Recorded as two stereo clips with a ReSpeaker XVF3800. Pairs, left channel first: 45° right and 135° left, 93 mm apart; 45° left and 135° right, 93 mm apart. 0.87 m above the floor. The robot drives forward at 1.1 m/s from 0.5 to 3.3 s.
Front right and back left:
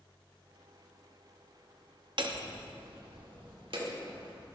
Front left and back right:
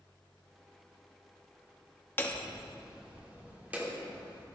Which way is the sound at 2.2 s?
110° left.